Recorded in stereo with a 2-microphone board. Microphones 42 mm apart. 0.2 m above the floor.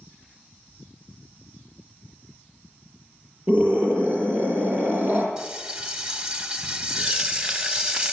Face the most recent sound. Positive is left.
turn(degrees=-20)  # may be behind; listen again after turning